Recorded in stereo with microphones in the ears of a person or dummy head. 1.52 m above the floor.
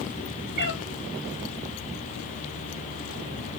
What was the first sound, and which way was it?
A cat meowing, 60° right (ahead or behind).